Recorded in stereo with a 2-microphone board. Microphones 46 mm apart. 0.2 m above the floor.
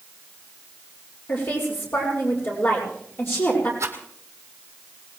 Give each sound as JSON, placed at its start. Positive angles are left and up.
{"t": 1.3, "sound": "a woman speaking", "side_deg": 55, "distance_m": 7.0}
{"t": 3.8, "sound": "a rattle", "side_deg": -75, "distance_m": 2.5}